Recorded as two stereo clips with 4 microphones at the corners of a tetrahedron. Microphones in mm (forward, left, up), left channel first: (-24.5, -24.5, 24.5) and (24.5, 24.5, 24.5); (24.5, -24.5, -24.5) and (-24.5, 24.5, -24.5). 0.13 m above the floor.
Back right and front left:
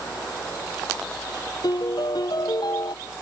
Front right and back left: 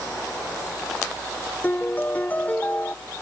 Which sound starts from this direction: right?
A piano, at 1.6 s.